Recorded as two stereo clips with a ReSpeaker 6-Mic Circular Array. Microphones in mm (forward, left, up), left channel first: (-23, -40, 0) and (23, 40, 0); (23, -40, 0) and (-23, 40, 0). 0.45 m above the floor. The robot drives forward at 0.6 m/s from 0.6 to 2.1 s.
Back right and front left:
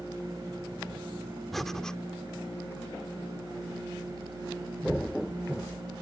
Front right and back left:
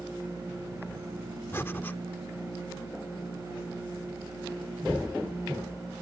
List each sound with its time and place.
1.5 s breathing: 35° right; by 2.0 s 55° right